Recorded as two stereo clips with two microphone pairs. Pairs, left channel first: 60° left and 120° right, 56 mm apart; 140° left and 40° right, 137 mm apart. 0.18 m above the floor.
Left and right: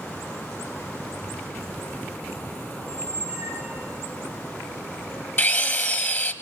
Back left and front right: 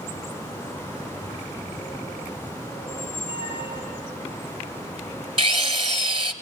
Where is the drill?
5° left, 1.5 m.